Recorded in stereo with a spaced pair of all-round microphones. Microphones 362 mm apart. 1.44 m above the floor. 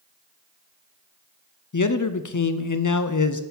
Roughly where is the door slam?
No door slam in this recording.